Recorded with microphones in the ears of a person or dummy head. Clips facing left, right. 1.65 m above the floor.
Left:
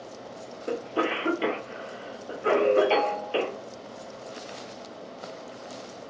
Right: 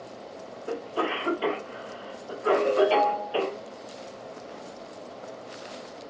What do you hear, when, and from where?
0.7 s a cough: 35° left (ahead or behind), 1.0 m
2.5 s a ringtone: 60° left (ahead or behind), 1.0 m